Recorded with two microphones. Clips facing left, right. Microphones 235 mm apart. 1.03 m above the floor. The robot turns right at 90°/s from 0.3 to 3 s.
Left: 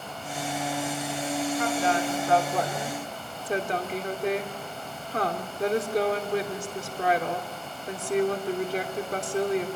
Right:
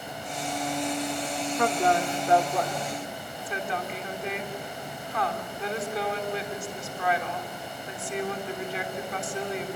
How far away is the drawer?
No drawer in this recording.